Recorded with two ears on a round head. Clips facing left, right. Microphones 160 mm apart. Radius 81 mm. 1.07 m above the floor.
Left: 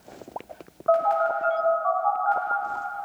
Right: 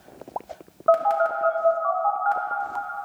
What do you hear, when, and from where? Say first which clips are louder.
0.9 s a phone buzzing: right 2 dB; 50° right (ahead or behind), 1.5 m